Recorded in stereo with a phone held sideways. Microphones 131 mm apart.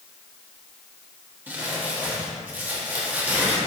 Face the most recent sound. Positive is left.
turn(degrees=-15)  # may be behind; listen again after turning